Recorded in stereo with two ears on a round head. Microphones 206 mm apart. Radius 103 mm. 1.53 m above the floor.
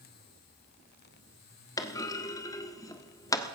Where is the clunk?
15° left (ahead or behind), 1.2 m.